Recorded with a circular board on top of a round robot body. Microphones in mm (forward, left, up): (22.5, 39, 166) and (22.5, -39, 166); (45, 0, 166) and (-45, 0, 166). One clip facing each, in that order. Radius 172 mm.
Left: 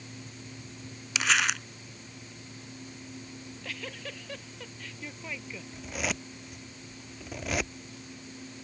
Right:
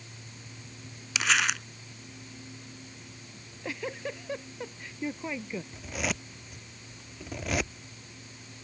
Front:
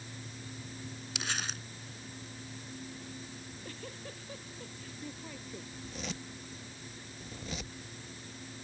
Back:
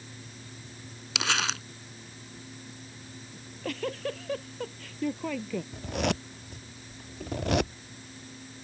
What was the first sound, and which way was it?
Crumpling, straight behind.